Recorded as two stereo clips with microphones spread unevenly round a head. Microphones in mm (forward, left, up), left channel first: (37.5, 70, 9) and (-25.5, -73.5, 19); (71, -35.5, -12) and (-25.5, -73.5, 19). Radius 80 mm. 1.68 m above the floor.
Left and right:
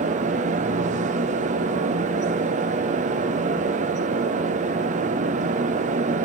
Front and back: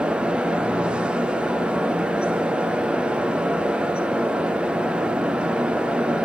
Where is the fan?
75° right, 1.2 m.